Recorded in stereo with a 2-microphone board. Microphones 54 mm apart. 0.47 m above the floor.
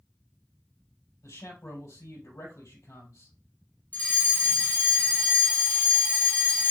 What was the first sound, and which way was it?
A man speaking, 70° left (ahead or behind).